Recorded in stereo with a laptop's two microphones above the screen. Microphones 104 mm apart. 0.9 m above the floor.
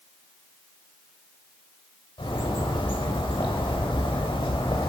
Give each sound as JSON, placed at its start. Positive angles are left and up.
{"t": 2.2, "sound": "a bird", "side_deg": 65, "distance_m": 1.1}